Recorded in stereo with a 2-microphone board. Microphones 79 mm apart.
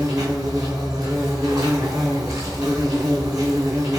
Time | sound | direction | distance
0.0 | an insect | 45° right (ahead or behind) | 1.3 m